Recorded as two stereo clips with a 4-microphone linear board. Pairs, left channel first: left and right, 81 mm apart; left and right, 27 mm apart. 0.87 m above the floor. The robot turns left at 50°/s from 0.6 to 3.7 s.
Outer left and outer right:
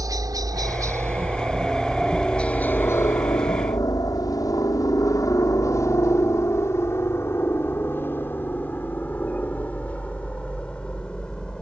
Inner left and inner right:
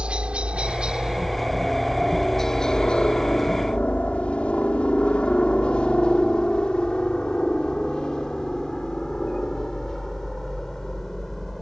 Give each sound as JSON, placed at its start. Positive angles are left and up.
{"t": 0.0, "sound": "a helicopter", "side_deg": -45}